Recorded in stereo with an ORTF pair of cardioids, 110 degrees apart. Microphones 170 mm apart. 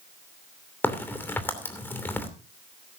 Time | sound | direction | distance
0.8 | a crack | 10° left | 2.5 m